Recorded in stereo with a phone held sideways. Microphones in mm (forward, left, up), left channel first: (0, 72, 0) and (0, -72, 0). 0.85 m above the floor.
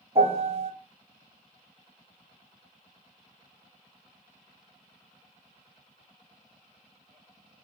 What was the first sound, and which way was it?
A piano, 40° right (ahead or behind).